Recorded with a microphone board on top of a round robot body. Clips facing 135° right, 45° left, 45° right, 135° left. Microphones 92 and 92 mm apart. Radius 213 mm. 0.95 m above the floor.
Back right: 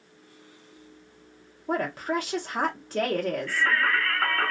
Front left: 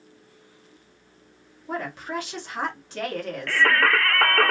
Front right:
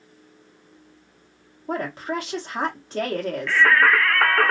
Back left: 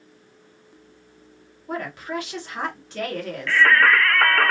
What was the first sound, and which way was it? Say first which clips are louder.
A woman speaking: back right 3 dB, front right 2 dB; 95° right.